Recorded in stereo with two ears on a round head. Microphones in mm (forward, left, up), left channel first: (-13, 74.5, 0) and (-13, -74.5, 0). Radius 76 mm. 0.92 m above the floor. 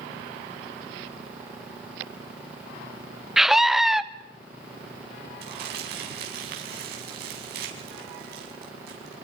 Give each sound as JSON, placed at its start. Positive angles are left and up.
{"t": 3.4, "sound": "a scream", "side_deg": 0, "distance_m": 0.8}
{"t": 5.4, "sound": "crumpling", "side_deg": -65, "distance_m": 5.5}